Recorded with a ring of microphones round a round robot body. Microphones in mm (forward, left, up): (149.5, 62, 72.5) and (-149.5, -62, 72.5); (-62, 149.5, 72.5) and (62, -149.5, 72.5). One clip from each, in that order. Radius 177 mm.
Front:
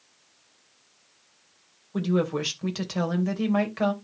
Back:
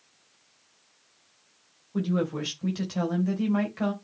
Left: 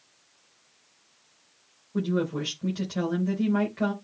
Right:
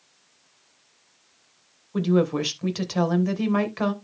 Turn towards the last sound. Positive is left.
turn(degrees=-45)